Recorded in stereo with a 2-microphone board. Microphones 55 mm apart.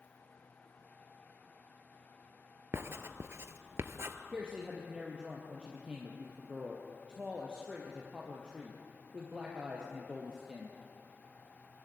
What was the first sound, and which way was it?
Writing, 50° right (ahead or behind).